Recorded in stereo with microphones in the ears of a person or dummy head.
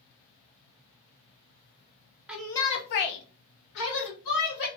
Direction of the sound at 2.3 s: 5° right (ahead or behind).